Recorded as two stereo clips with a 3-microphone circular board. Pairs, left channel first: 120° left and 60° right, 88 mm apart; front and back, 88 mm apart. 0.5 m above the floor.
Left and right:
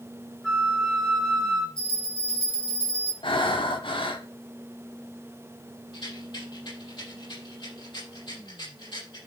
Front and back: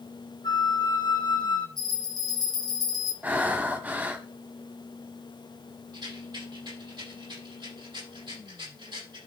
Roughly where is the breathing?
Left.